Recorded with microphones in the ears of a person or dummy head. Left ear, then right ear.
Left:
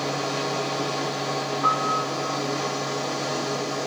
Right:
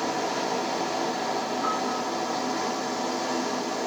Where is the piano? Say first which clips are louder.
Left 5 dB; 75° left (ahead or behind), 1.6 m.